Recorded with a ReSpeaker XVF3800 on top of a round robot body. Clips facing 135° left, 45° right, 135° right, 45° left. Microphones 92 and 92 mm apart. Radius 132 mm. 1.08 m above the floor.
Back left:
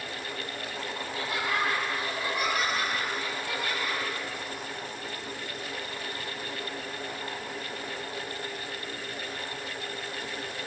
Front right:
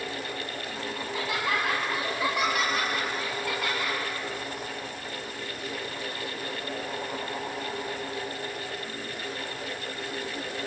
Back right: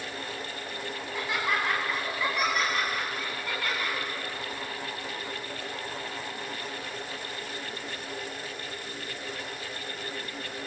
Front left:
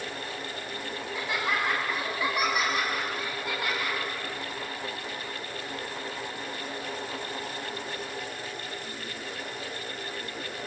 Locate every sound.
1.0 s laughter: 45° right, 7.5 m; by 4.0 s 30° right, 10 m